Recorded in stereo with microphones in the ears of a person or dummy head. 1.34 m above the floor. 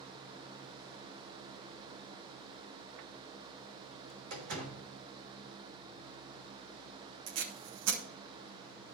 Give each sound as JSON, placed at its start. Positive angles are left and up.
{"t": 4.3, "sound": "a door slam", "side_deg": -65, "distance_m": 5.0}
{"t": 7.3, "sound": "tape being pulled", "side_deg": -80, "distance_m": 2.5}